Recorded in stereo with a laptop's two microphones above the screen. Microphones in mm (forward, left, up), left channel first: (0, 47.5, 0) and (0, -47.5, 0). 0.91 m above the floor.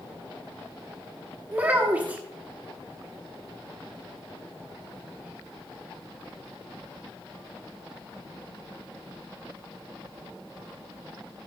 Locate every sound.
1.5 s a child speaking: 15° right (ahead or behind), 0.7 m